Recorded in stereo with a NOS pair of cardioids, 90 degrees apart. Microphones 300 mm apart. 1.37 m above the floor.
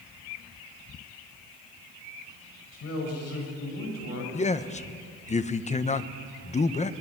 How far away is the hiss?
No hiss in this recording.